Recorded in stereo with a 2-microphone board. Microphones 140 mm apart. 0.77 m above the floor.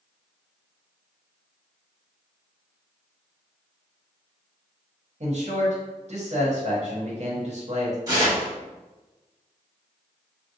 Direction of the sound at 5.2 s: 55° right (ahead or behind).